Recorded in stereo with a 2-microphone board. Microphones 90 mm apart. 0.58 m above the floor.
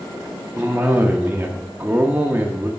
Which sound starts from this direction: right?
A cough, at 0.6 s.